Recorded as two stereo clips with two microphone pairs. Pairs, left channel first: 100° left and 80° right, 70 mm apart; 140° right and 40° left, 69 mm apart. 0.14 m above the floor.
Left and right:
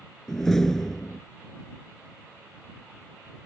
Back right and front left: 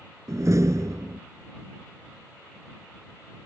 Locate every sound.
0.3 s a door slam: 20° left